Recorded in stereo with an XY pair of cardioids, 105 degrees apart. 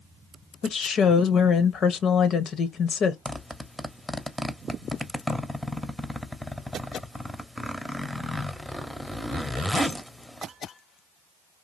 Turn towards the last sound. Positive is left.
turn(degrees=5)